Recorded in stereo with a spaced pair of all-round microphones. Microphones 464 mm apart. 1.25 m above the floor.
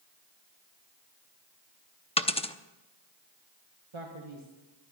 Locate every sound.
2.2 s a dropped coin: 10° left (ahead or behind), 0.7 m
3.9 s a man speaking: 70° right (ahead or behind), 1.6 m